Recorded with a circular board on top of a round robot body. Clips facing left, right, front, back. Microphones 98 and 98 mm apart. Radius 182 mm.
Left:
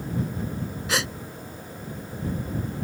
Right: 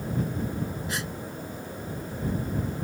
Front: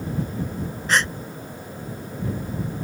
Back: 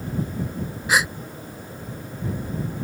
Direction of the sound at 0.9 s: 100° left.